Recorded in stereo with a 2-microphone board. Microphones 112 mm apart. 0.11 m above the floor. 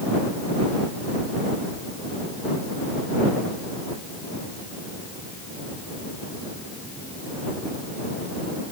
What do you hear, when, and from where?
Only background noise.